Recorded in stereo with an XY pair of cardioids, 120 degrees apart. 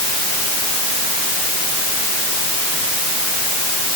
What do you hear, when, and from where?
Only background noise.